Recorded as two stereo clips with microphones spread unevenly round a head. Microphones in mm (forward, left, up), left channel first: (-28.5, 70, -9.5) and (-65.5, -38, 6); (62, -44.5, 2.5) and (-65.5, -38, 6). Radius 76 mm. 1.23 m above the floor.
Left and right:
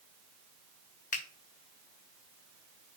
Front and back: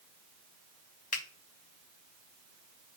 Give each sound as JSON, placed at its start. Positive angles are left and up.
{"t": 1.1, "sound": "a finger snap", "azimuth_deg": 40, "distance_m": 1.0}